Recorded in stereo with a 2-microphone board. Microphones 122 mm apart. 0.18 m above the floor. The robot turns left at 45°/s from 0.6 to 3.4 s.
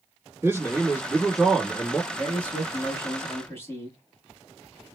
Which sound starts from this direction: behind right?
A man speaking, at 0.4 s.